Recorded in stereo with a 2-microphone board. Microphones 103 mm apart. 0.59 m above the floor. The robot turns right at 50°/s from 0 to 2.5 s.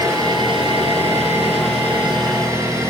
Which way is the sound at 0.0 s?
155° right.